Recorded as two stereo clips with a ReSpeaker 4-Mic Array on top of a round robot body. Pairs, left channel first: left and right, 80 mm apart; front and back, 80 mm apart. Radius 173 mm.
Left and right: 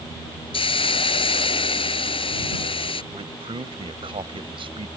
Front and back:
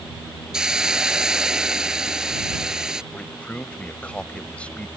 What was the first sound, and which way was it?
A hiss, 95° left.